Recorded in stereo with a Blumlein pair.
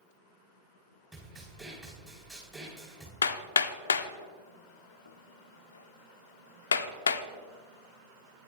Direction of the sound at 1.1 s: 10° right.